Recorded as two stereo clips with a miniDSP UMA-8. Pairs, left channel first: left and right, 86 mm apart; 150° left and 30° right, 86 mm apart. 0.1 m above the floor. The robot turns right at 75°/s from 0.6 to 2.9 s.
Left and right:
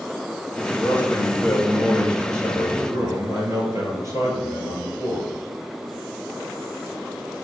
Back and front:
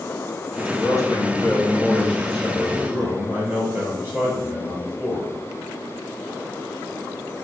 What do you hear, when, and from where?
0.8 s a man speaking: 125° left, 1.5 m; by 5.3 s 75° right, 1.5 m